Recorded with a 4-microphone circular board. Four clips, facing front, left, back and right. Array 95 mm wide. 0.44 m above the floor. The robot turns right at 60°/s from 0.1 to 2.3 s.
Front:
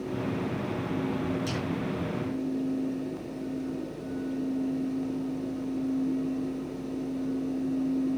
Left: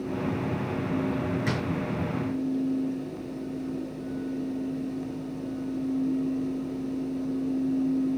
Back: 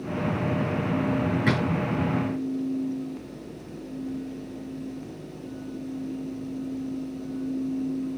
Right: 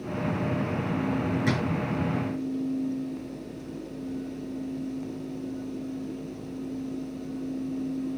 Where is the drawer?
Straight behind, 5 m; by 1.6 s 170° right, 5 m.